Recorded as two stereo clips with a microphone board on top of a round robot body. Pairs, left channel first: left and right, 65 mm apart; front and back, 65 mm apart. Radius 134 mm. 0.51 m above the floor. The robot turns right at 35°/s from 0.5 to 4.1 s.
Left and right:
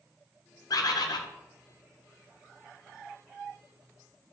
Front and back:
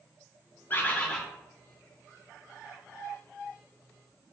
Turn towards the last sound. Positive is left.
turn(degrees=180)